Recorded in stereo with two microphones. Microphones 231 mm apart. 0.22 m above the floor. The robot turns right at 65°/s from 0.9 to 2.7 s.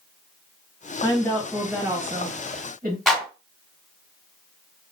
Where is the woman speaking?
145° left, 1.7 m; by 3.0 s 105° right, 1.7 m.